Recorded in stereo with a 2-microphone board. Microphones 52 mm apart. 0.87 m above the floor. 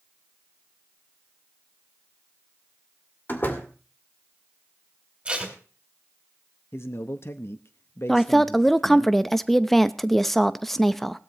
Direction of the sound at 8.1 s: 5° left (ahead or behind).